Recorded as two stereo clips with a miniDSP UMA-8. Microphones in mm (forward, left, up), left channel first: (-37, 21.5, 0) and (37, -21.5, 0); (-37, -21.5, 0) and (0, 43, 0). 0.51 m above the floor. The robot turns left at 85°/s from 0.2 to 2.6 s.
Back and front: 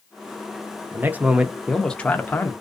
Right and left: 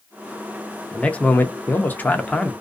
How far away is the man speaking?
About 0.7 m.